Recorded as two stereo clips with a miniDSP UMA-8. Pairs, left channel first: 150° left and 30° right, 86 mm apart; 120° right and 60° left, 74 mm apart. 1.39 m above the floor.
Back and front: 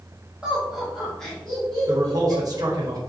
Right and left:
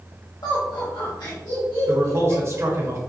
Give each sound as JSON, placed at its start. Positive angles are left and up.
{"t": 0.4, "sound": "laughter", "azimuth_deg": -105, "distance_m": 1.0}
{"t": 1.9, "sound": "a man speaking", "azimuth_deg": 10, "distance_m": 1.1}